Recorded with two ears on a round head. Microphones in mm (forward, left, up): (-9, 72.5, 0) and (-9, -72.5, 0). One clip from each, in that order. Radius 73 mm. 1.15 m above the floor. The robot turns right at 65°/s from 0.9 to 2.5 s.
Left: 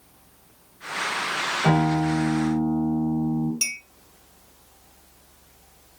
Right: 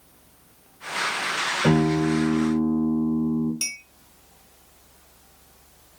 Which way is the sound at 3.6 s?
5° left (ahead or behind).